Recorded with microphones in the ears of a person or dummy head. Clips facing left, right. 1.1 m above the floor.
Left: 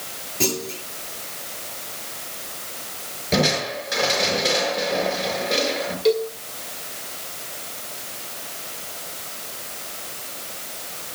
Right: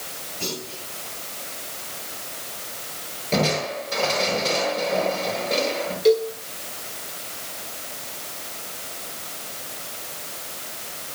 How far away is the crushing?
About 6 m.